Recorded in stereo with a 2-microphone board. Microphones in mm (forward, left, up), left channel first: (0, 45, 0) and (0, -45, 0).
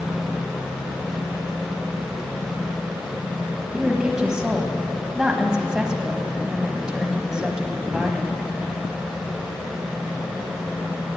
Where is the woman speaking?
10° right (ahead or behind), 1.3 m.